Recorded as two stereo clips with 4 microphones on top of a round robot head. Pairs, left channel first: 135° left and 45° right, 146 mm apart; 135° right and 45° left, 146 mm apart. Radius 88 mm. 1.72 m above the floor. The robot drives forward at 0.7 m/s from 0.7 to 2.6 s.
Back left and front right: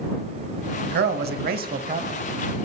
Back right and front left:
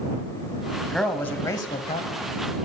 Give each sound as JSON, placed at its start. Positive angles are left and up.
{"t": 0.8, "sound": "a man speaking", "azimuth_deg": -45, "distance_m": 1.2}